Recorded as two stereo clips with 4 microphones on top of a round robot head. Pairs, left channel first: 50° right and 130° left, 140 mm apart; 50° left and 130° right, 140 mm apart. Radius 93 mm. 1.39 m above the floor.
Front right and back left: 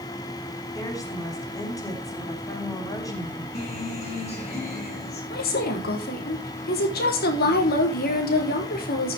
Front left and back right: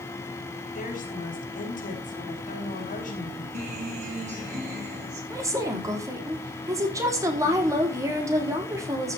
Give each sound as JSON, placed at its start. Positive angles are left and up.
{"t": 0.8, "sound": "a woman speaking", "azimuth_deg": 20, "distance_m": 4.5}
{"t": 3.5, "sound": "a guitar", "azimuth_deg": -90, "distance_m": 8.0}
{"t": 5.3, "sound": "a woman speaking", "azimuth_deg": -65, "distance_m": 3.5}